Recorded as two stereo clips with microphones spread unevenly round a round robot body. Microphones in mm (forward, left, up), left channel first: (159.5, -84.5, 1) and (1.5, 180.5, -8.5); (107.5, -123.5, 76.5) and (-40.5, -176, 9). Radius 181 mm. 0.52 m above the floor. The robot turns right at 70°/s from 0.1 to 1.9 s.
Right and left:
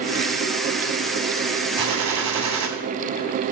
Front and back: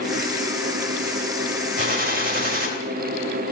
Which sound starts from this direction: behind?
A gunshot, at 1.8 s.